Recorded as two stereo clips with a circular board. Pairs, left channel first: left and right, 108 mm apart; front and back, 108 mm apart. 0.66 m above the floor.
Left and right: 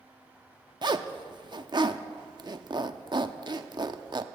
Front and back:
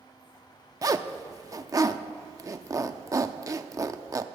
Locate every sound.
0.8 s a zipper: 125° right, 0.5 m